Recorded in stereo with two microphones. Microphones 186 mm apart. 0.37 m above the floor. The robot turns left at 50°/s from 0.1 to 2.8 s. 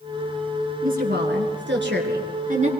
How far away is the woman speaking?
About 5 m.